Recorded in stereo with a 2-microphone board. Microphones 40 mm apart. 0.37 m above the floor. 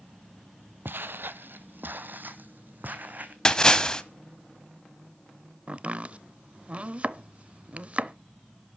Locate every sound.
0.8 s footsteps: 65° right (ahead or behind), 0.7 m; by 3.4 s 50° right (ahead or behind), 1.8 m
3.5 s a splash: 15° left (ahead or behind), 1.1 m
5.7 s chopping: 30° right (ahead or behind), 0.6 m